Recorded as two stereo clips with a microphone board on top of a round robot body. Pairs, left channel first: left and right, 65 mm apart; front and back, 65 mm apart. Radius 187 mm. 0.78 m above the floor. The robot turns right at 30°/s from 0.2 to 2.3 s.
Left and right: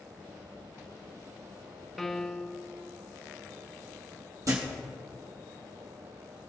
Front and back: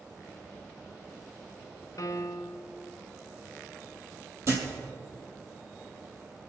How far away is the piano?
About 0.8 m.